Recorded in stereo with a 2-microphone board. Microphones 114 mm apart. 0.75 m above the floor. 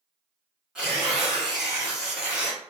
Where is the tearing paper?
5° right (ahead or behind), 1.6 m.